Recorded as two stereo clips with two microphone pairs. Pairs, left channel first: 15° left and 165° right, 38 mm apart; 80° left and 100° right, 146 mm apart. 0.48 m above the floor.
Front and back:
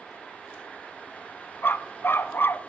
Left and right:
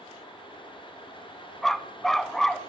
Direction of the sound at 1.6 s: 5° right.